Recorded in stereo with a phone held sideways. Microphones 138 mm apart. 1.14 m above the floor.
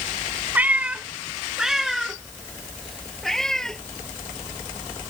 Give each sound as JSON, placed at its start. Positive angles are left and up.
{"t": 0.6, "sound": "a cat meowing", "side_deg": -15}